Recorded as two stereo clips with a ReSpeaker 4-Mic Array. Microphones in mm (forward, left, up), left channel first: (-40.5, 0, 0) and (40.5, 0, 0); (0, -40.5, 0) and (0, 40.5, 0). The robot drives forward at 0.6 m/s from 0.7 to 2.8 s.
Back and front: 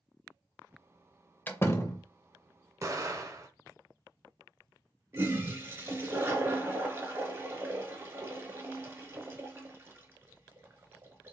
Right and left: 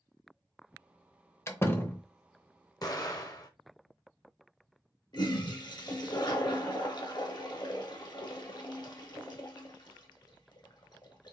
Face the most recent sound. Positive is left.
turn(degrees=-60)